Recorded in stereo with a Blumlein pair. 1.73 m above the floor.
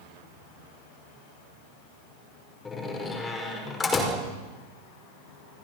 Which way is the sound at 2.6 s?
15° left.